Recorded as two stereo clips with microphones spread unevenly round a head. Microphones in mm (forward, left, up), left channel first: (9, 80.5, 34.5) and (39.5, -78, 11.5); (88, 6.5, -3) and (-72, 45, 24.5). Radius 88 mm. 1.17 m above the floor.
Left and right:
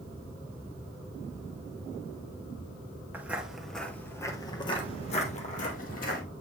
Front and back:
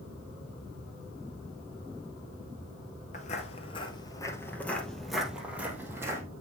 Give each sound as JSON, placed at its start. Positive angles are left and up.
{"t": 3.1, "sound": "footsteps", "azimuth_deg": 0, "distance_m": 1.3}